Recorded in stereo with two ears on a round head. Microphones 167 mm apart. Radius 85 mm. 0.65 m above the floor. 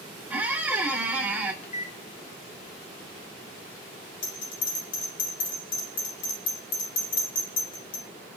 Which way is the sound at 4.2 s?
80° left.